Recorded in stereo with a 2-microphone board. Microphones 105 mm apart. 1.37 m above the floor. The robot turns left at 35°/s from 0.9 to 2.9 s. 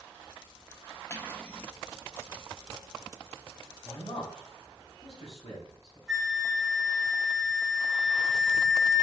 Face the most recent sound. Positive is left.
turn(degrees=0)  # may be behind; listen again after turning